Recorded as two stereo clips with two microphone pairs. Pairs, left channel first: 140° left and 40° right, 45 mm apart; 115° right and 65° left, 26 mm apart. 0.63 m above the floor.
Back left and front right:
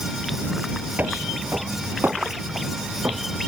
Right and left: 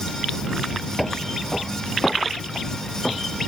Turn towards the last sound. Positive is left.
turn(degrees=-55)